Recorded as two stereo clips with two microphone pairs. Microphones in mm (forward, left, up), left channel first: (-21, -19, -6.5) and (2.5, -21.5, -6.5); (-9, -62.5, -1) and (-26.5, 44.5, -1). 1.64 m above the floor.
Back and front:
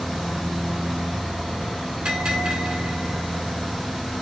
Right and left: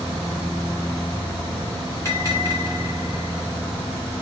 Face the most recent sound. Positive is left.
turn(degrees=-20)